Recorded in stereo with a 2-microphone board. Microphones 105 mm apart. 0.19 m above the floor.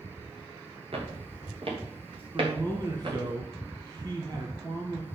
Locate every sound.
0.9 s footsteps: 70° right (ahead or behind), 4.5 m; by 3.3 s 55° right (ahead or behind), 6 m
2.3 s a man speaking: 40° right (ahead or behind), 1.7 m